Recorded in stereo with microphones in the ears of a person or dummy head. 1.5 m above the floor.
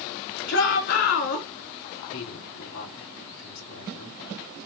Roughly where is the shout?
Left.